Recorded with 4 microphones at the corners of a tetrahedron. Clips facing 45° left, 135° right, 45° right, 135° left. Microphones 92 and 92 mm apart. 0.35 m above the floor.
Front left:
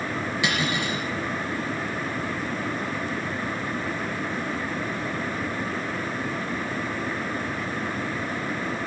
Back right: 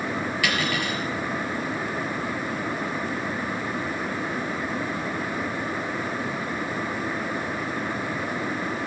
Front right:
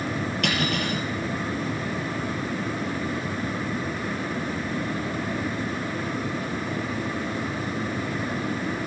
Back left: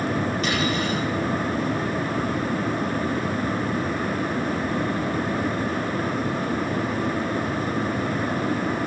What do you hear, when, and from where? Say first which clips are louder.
0.4 s cutlery clinking: front left 1 dB, back left 2 dB; 25° right, 4 m